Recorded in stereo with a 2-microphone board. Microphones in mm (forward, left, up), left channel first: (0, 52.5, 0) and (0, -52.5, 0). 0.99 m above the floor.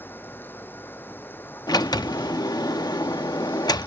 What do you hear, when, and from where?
0.0 s running water: 20° left (ahead or behind)
1.7 s a sliding door: 35° left (ahead or behind)